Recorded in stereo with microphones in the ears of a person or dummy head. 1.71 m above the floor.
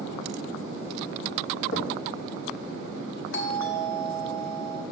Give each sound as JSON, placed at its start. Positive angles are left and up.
{"t": 1.7, "sound": "knocking", "side_deg": 60, "distance_m": 1.7}
{"t": 3.3, "sound": "a doorbell", "side_deg": 65, "distance_m": 1.4}